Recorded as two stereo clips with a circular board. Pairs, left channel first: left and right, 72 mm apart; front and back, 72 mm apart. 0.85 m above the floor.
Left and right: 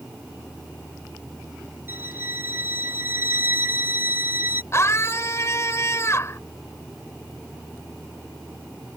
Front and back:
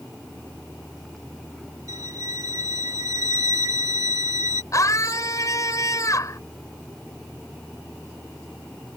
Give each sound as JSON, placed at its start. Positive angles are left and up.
{"t": 1.9, "sound": "a violin", "azimuth_deg": -150}
{"t": 4.7, "sound": "a scream", "azimuth_deg": 40}